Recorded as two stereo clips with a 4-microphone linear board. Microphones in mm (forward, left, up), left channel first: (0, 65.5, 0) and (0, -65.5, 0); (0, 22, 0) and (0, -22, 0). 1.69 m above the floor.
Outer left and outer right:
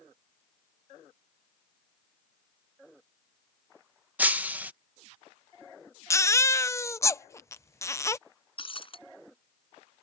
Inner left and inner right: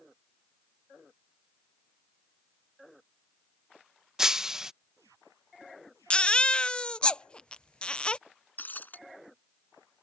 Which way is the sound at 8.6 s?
45° left (ahead or behind).